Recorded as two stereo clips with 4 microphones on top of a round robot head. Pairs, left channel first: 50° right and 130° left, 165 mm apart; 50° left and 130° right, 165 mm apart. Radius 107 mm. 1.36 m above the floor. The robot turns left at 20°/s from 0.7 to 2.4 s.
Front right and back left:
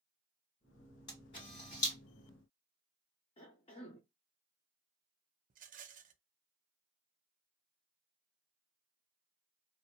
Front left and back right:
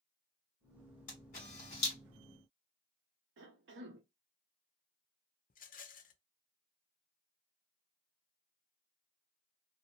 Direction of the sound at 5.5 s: 90° left.